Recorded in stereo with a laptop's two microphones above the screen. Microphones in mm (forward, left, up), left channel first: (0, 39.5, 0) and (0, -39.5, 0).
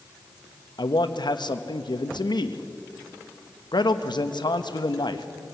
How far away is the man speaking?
About 1.1 m.